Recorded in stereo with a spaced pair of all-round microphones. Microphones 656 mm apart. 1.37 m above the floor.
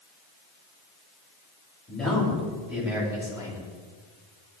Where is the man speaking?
Centre (ahead or behind), 8 m; by 3.6 s 5° right (ahead or behind), 8 m.